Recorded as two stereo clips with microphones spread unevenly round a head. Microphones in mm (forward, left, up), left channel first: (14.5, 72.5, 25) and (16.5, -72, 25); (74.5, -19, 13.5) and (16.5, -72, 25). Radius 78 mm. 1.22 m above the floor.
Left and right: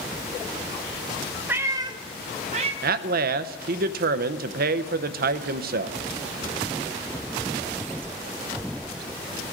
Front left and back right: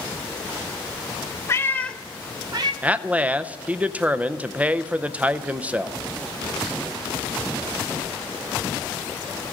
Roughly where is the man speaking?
Ahead right.